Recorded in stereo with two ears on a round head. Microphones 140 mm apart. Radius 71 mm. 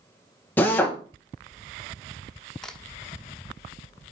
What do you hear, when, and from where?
0.6 s a drill: 10° left (ahead or behind), 1.4 m
2.6 s a crack: 5° left (ahead or behind), 1.2 m